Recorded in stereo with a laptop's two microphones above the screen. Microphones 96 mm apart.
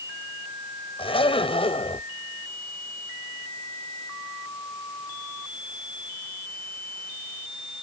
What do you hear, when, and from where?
1.0 s a zipper: 80° left